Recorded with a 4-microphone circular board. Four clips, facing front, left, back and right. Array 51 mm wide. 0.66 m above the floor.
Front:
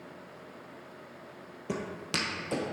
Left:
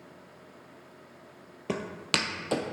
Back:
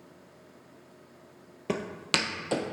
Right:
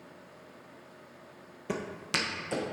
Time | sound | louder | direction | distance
1.7 | footsteps | left 3 dB, back 4 dB | 150° left | 0.9 m